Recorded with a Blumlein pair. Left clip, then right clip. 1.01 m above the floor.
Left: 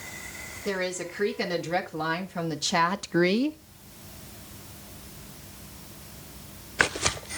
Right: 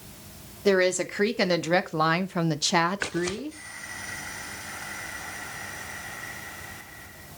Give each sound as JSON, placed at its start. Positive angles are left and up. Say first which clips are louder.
{"t": 0.7, "sound": "a woman speaking", "louder": "right 8 dB", "azimuth_deg": -35, "distance_m": 2.0}